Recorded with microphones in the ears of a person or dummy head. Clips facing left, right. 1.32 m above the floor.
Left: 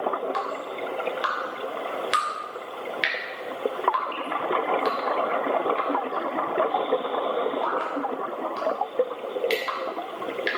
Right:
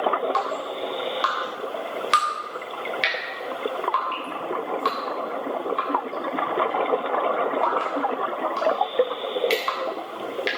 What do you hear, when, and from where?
0.3 s dripping: 5° left (ahead or behind), 2.5 m